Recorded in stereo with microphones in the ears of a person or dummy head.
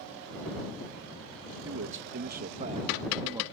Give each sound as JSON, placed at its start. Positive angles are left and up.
{"t": 1.6, "sound": "a man speaking", "side_deg": -75}